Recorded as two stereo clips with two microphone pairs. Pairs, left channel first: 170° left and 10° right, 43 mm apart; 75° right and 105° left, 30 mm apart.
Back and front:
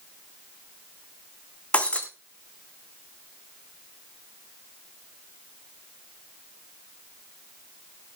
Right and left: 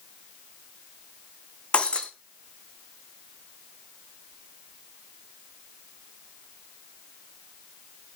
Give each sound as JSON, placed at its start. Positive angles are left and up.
{"t": 1.7, "sound": "breaking glass", "azimuth_deg": -130, "distance_m": 2.5}